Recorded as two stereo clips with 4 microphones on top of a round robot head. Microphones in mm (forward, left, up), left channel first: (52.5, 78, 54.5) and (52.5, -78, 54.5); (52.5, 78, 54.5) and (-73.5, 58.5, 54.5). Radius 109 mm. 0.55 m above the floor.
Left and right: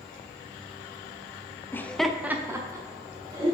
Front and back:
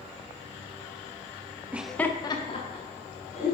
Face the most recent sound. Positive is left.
turn(degrees=-25)